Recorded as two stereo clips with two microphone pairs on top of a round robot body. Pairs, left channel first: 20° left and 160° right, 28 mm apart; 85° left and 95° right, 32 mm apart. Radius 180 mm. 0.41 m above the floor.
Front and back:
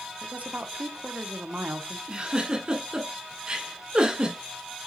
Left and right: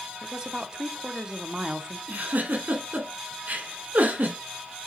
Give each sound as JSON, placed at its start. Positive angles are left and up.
{"t": 0.2, "sound": "a woman speaking", "azimuth_deg": -160, "distance_m": 1.2}
{"t": 2.1, "sound": "a giggle", "azimuth_deg": -100, "distance_m": 2.0}